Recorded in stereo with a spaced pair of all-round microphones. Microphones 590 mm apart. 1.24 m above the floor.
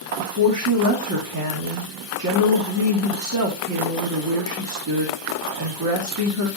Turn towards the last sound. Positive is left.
turn(degrees=-30)  # may be behind; listen again after turning